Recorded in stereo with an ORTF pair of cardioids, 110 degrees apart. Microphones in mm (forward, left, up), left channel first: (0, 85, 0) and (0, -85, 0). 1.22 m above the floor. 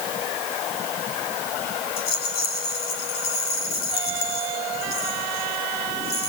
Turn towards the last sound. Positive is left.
turn(degrees=60)